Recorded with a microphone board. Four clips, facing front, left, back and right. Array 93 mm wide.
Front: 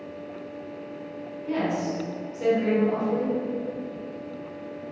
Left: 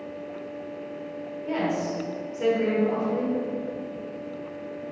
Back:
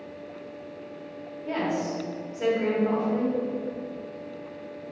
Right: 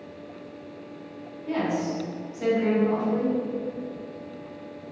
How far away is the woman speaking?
About 1.2 m.